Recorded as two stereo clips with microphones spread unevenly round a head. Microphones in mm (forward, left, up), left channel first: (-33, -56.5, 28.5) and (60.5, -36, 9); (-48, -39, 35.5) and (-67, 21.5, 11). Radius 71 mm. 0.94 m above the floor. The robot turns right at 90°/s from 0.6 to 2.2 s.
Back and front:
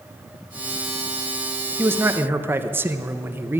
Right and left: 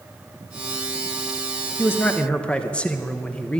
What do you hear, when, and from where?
1.8 s a man speaking: 10° right, 0.8 m; by 3.6 s 25° left, 0.8 m